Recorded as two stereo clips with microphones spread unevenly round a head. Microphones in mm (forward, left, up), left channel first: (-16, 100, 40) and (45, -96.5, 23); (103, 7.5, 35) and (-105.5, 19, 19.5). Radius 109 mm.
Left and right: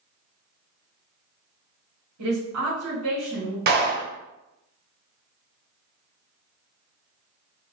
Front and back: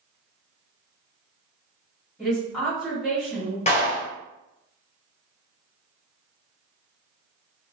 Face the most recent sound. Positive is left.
turn(degrees=-45)